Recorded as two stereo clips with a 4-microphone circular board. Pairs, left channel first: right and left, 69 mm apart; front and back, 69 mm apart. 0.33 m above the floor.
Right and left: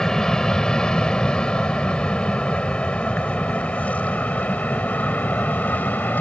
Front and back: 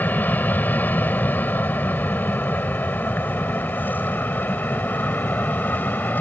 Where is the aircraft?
20° right; by 6.2 s 45° right.